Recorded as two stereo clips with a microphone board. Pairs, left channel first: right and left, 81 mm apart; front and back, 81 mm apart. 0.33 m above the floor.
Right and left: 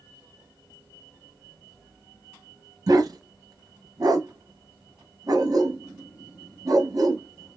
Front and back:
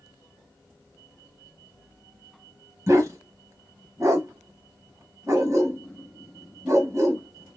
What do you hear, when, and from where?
2.9 s a dog barking: 130° left, 1.2 m